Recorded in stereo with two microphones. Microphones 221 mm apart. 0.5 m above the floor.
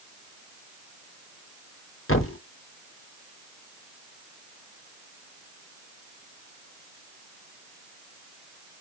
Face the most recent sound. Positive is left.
turn(degrees=75)  # may be behind; listen again after turning